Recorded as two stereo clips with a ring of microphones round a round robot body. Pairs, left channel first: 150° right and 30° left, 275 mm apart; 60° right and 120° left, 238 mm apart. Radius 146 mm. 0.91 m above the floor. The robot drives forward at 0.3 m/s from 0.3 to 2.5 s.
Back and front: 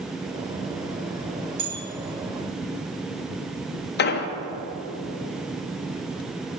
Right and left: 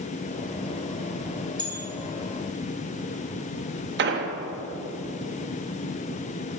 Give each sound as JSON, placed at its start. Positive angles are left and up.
{"t": 1.6, "sound": "a bell", "azimuth_deg": 50, "distance_m": 2.5}
{"t": 4.0, "sound": "an explosion", "azimuth_deg": 160, "distance_m": 0.7}